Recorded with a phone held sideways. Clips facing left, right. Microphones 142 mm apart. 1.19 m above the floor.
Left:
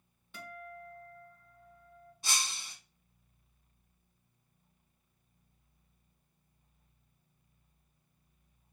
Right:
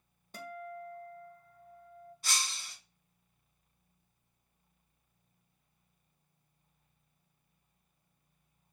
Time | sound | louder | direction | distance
0.3 | a guitar | right 4 dB | 40° right (ahead or behind) | 0.9 m
2.2 | breaking glass | left 1 dB | 20° left (ahead or behind) | 1.6 m